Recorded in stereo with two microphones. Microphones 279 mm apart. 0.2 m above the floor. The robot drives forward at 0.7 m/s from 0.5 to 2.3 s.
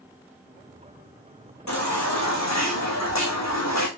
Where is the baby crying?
70° left (ahead or behind), 4.5 m; by 3.9 s 65° left (ahead or behind), 4.5 m.